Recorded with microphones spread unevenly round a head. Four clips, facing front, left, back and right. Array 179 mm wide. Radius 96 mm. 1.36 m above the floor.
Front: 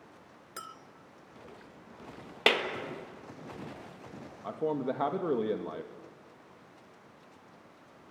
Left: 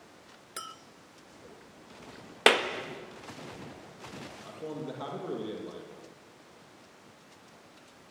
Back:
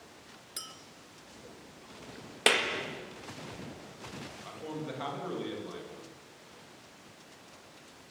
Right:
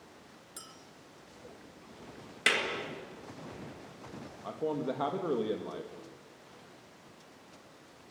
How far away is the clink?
About 0.5 m.